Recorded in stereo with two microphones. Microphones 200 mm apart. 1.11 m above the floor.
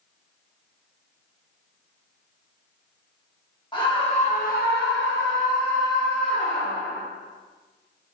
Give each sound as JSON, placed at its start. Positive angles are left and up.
{"t": 3.7, "sound": "a scream", "side_deg": 20, "distance_m": 1.2}